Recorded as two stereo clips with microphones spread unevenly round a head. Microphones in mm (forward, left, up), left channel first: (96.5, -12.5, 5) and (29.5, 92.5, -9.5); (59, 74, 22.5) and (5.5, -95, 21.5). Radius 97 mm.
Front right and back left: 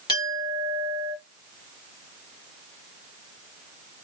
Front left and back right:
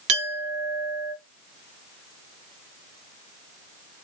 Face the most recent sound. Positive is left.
turn(degrees=-120)